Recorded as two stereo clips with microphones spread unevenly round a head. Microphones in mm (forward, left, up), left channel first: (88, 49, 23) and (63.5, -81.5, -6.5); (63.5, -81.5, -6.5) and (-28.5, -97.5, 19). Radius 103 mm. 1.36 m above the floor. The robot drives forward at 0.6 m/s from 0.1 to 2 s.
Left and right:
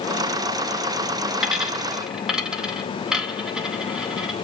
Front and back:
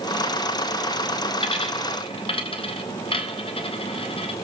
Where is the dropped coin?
15° right, 4 m.